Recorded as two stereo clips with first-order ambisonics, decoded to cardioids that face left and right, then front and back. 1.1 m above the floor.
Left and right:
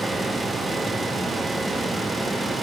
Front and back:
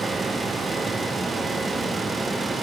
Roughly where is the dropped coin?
I don't hear a dropped coin.